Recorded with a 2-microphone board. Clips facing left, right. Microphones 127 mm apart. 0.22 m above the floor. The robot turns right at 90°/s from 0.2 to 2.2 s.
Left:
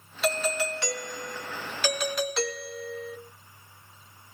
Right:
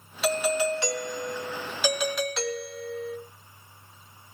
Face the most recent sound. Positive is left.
turn(degrees=0)  # may be behind; listen again after turning